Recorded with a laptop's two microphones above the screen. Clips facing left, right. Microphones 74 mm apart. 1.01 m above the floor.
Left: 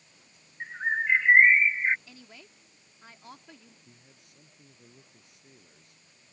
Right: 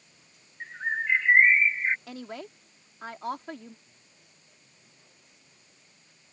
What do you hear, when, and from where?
0.6 s a bird: 15° left (ahead or behind)
2.1 s a woman speaking: 65° right (ahead or behind)
3.9 s a man speaking: 70° left (ahead or behind)